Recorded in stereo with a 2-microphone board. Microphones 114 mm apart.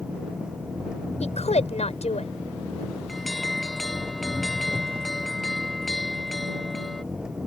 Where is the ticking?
I don't hear ticking.